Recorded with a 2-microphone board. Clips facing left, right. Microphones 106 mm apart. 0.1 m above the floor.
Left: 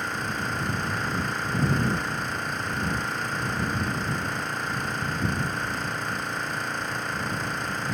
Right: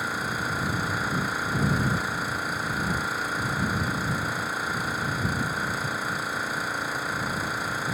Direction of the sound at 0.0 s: 5° right (ahead or behind).